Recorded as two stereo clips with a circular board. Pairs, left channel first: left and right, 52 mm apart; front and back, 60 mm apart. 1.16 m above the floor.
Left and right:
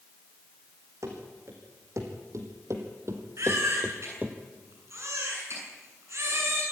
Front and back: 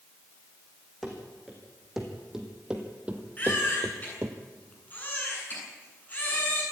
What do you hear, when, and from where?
1.0 s running footsteps: 90° right, 5 m; by 4.4 s 155° right, 2.0 m
3.4 s a baby crying: 60° right, 8 m